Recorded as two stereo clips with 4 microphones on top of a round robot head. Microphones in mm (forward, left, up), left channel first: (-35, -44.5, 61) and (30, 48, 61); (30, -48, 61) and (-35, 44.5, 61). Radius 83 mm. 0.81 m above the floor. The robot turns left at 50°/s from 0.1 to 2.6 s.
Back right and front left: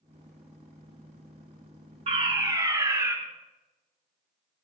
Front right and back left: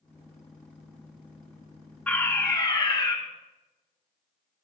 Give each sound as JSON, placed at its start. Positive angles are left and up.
{"t": 2.1, "sound": "a fire alarm", "azimuth_deg": 25, "distance_m": 4.5}